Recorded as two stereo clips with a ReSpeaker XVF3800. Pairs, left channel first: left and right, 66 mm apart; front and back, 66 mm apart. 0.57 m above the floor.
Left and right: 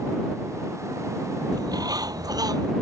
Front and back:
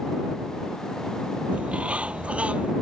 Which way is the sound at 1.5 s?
105° right.